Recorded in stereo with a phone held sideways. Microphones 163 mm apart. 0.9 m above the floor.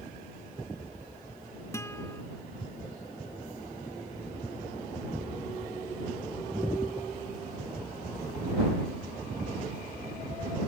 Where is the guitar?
15° left (ahead or behind).